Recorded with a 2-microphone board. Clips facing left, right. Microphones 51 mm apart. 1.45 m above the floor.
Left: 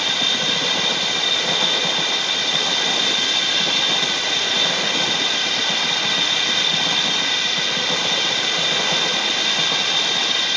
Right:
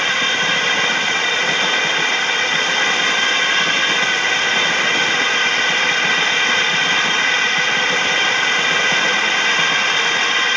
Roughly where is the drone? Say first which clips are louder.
Right 5 dB; right.